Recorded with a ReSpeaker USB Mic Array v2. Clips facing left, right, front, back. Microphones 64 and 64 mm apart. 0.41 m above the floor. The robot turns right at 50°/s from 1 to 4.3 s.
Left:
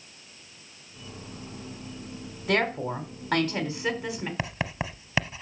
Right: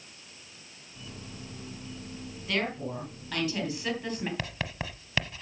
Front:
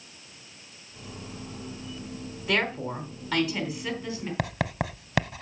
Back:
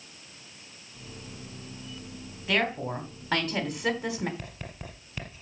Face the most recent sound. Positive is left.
turn(degrees=15)